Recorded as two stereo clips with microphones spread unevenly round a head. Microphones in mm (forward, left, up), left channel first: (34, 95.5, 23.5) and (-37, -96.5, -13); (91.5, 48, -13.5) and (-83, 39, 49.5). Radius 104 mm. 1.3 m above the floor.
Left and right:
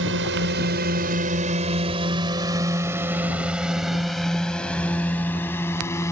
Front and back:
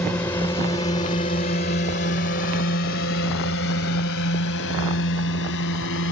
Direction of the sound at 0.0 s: 80° right.